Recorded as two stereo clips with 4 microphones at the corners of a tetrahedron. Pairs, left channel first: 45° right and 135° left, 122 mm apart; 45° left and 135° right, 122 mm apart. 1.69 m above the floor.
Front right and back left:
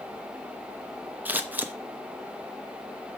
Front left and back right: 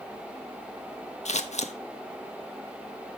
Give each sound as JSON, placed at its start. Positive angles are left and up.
{"t": 1.2, "sound": "scissors", "azimuth_deg": 60, "distance_m": 0.8}